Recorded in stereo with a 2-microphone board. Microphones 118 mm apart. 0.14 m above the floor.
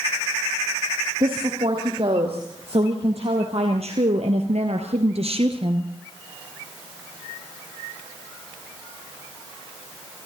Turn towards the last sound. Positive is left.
turn(degrees=-45)  # may be behind; listen again after turning